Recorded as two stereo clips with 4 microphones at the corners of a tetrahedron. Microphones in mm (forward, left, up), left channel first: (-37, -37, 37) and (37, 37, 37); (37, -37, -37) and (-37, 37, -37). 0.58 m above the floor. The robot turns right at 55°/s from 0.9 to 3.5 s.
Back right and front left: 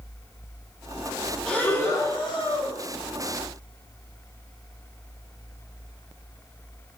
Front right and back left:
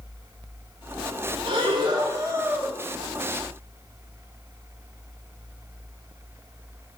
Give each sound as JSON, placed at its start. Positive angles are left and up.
{"t": 1.5, "sound": "breathing", "azimuth_deg": 145, "distance_m": 2.0}